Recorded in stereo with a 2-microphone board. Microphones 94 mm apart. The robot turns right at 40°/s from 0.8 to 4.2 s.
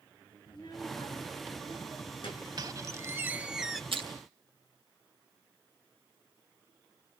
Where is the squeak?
45° right, 0.8 m; by 3.8 s 5° left, 0.8 m.